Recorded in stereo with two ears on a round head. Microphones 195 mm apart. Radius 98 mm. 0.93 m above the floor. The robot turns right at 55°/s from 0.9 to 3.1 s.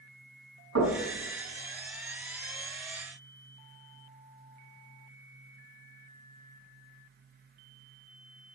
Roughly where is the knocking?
Right.